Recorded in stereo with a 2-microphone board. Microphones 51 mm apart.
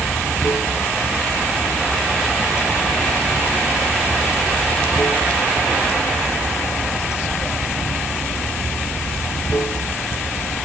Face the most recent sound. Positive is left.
turn(degrees=60)  # may be behind; listen again after turning